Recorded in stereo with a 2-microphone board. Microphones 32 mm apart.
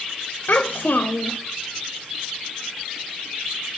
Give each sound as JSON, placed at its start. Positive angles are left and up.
{"t": 0.5, "sound": "a child speaking", "side_deg": 70, "distance_m": 0.6}